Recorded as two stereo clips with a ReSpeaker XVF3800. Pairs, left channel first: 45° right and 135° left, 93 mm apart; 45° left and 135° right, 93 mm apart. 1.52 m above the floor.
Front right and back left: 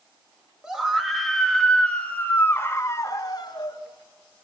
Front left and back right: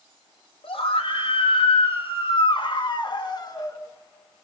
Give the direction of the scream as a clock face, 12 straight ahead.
10 o'clock.